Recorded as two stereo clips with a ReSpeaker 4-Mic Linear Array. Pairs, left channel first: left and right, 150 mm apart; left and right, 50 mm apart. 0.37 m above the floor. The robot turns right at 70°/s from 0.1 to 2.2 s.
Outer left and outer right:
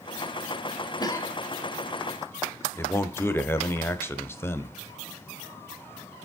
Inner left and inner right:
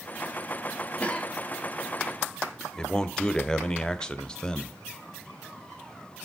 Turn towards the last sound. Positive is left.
turn(degrees=15)  # may be behind; listen again after turning